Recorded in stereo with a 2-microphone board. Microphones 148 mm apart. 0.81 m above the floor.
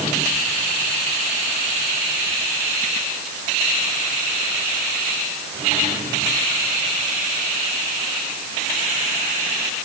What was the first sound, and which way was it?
Only background noise.